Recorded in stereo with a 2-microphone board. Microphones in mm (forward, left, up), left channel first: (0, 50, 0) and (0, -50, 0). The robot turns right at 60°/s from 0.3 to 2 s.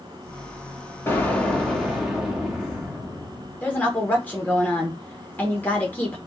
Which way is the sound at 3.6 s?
15° left (ahead or behind).